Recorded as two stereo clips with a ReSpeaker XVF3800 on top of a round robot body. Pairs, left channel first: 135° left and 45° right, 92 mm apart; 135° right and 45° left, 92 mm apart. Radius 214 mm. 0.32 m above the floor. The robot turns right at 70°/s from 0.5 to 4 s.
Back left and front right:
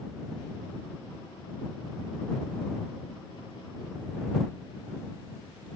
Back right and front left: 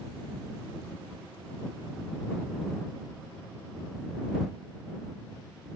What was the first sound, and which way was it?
Only background noise.